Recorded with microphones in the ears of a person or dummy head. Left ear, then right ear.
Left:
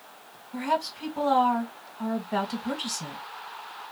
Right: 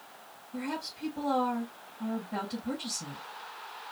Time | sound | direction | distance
0.5 | a woman speaking | 70° left (ahead or behind) | 1.8 m